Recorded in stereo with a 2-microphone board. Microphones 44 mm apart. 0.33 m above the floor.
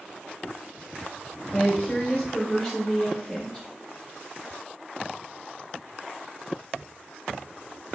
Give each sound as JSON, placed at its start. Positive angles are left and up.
{"t": 1.5, "sound": "a woman speaking", "side_deg": 10, "distance_m": 1.1}